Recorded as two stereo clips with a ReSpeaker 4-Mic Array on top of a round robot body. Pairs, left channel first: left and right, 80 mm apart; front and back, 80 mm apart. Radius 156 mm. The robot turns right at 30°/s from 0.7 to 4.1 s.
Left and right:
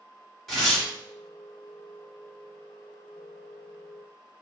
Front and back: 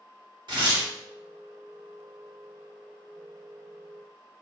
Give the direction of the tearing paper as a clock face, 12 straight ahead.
6 o'clock.